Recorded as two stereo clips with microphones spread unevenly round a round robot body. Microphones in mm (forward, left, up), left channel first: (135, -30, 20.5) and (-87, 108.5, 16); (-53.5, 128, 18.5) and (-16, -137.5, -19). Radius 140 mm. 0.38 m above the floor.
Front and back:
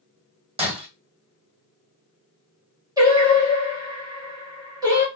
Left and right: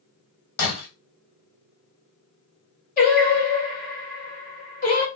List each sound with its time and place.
0.6 s breaking glass: 80° left, 1.6 m
3.0 s singing: 100° left, 1.5 m